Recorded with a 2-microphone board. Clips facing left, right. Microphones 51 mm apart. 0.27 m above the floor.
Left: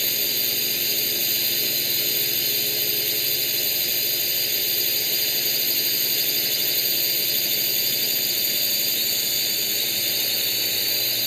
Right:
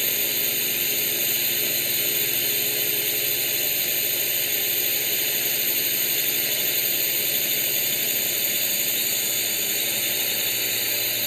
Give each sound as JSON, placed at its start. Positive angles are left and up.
{"t": 0.0, "sound": "a drone", "side_deg": -15}